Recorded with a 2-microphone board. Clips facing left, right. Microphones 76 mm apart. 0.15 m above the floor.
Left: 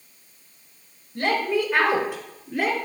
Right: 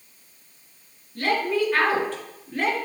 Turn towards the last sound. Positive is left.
turn(degrees=5)  # may be behind; listen again after turning